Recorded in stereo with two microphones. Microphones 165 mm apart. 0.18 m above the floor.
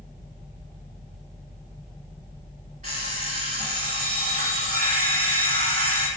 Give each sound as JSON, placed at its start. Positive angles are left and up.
{"t": 2.8, "sound": "an alarm clock", "side_deg": -50, "distance_m": 1.3}